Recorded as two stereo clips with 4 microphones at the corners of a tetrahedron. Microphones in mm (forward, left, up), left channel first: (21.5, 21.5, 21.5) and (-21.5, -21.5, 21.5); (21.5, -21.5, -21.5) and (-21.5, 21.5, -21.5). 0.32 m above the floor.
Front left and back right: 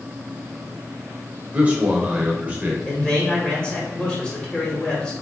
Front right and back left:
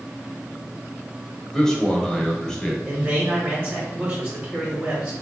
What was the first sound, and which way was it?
A man speaking, 110° right.